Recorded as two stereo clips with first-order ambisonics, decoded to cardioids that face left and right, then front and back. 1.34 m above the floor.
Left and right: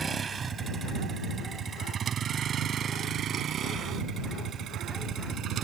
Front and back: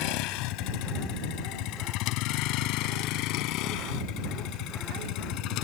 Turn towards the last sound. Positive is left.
turn(degrees=-35)